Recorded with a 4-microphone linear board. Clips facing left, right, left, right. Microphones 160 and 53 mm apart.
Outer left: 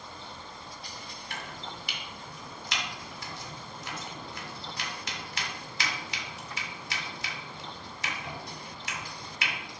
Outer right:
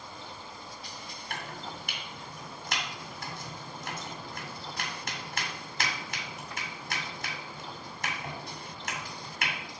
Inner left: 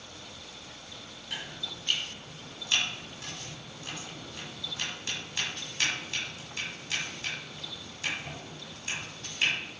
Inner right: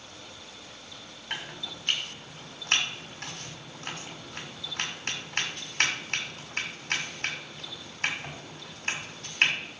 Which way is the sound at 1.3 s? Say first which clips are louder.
Outer right 2 dB, inner right 2 dB; 50° right (ahead or behind).